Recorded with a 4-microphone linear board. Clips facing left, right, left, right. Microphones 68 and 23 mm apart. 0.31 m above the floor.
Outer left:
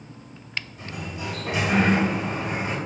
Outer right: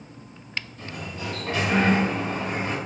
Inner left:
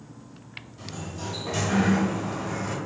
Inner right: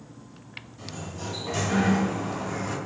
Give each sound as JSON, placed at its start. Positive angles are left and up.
{"t": 0.8, "sound": "a sliding door", "side_deg": 15, "distance_m": 1.3}